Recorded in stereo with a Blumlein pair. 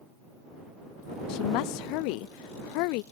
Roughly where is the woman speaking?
Ahead left.